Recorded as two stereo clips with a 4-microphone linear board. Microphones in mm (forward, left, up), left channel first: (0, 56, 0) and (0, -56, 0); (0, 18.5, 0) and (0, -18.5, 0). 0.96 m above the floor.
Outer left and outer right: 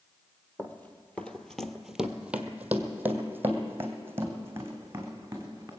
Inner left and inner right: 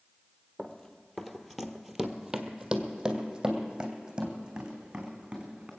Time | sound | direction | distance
0.6 | running footsteps | 15° left (ahead or behind) | 1.1 m